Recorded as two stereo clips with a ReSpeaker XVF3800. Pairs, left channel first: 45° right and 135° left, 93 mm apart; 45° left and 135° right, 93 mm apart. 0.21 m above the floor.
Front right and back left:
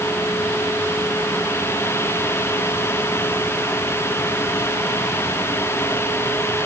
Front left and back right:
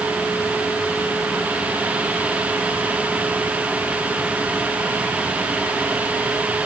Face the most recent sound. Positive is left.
No sound to turn to.